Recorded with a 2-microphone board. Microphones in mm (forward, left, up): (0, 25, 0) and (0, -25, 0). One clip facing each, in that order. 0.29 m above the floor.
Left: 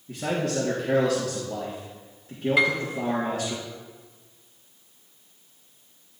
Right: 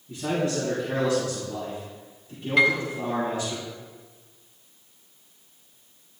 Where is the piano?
10° left (ahead or behind), 1.6 m.